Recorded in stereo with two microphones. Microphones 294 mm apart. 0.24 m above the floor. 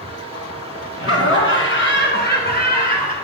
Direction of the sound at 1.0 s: 50° left (ahead or behind).